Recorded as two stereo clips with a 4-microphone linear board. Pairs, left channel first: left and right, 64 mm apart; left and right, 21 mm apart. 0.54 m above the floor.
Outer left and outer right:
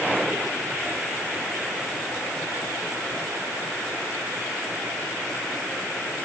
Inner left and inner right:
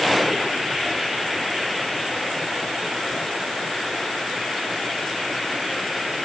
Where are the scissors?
No scissors in this recording.